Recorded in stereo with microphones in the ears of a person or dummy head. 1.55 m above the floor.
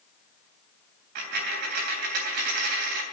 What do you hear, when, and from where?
1.1 s a dropped coin: 60° right (ahead or behind), 3 m